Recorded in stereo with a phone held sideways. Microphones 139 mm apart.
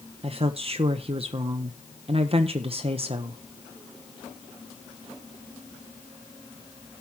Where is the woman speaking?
45° right (ahead or behind), 0.8 m.